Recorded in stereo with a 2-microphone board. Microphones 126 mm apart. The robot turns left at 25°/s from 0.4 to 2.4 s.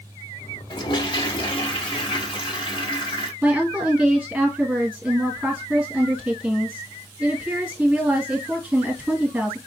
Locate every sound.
0.7 s a toilet flushing: 115° left, 0.9 m; by 3.3 s 70° left, 0.9 m
3.4 s a woman speaking: centre (ahead or behind), 1.6 m